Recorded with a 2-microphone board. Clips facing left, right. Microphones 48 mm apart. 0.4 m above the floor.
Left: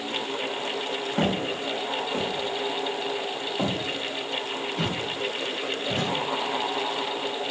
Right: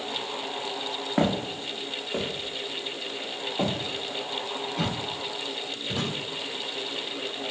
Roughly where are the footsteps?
Right.